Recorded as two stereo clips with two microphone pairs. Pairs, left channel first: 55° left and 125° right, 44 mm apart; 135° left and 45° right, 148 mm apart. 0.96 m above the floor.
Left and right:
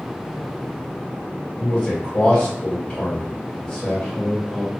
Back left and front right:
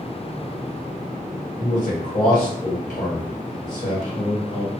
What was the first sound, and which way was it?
A man speaking, 110° left.